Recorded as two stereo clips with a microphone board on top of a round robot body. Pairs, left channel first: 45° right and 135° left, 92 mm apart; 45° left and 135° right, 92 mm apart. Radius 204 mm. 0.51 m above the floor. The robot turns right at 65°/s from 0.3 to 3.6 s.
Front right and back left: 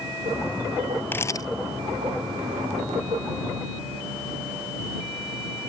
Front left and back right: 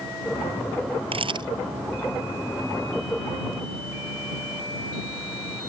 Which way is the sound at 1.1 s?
115° right.